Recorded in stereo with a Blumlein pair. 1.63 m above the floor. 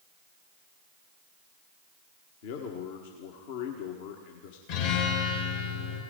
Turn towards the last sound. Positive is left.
turn(degrees=50)